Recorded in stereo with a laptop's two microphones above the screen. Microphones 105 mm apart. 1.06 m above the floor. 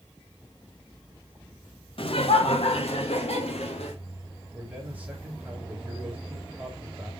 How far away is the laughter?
About 1.2 m.